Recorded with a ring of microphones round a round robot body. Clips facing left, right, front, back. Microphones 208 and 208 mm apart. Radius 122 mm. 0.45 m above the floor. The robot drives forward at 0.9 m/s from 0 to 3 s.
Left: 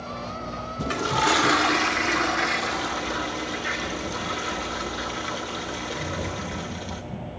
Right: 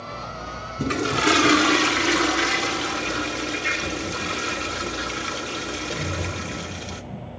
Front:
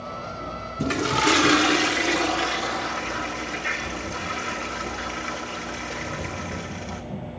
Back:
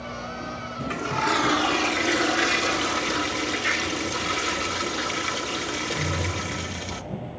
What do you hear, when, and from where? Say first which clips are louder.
0.8 s a toilet flushing: right 4 dB, front 6 dB; 30° right, 1.5 m; by 7.0 s 145° right, 1.3 m